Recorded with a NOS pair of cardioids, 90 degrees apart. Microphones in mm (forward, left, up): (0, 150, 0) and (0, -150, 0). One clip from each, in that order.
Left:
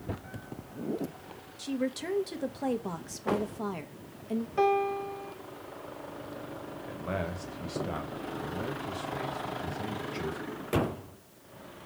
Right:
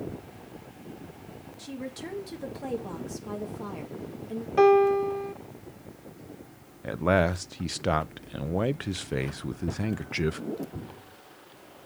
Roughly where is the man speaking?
Ahead right.